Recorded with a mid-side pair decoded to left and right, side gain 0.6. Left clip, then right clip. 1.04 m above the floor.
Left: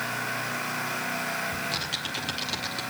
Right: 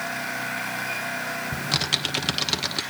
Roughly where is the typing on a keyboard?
Ahead right.